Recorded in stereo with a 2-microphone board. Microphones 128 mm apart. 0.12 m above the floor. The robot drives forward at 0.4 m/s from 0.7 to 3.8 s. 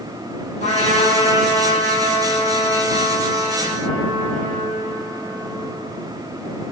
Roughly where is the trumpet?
Left.